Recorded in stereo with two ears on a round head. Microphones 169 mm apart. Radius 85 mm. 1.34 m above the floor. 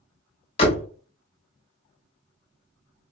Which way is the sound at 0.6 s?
30° left (ahead or behind).